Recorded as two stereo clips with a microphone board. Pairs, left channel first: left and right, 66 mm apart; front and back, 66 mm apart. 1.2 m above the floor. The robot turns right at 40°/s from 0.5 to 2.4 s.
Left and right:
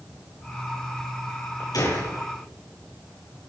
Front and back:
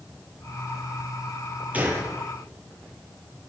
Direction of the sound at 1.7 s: 115° left.